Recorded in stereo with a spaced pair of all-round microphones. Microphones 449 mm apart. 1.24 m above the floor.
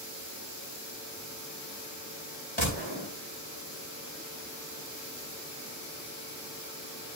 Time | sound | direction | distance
2.6 | a gunshot | 80° left | 4.5 m